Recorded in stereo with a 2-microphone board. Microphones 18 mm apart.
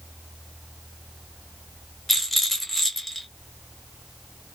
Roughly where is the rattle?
Centre.